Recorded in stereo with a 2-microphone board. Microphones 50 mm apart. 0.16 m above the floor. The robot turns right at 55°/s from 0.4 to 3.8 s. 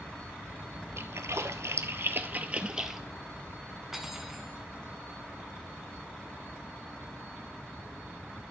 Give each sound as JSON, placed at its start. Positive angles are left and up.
{"t": 1.0, "sound": "a splash", "side_deg": -65, "distance_m": 0.7}
{"t": 3.9, "sound": "cutlery clinking", "side_deg": -10, "distance_m": 0.8}